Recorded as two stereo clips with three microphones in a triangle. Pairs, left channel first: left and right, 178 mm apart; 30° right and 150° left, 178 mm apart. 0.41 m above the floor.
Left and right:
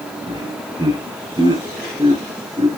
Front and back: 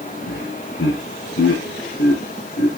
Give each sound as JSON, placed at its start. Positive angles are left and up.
{"t": 0.3, "sound": "laughter", "azimuth_deg": -25, "distance_m": 5.5}